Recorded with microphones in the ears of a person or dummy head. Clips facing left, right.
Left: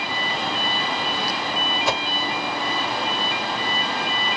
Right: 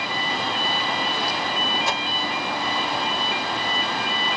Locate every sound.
1.9 s a whoosh: 65° left (ahead or behind), 0.9 m